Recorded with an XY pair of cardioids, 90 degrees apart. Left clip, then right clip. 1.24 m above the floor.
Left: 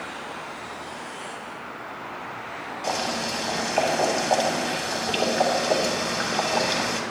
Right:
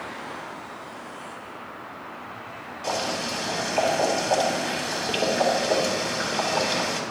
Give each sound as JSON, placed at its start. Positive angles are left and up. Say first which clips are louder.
{"t": 2.8, "sound": "boiling", "louder": "even", "azimuth_deg": 25, "distance_m": 3.0}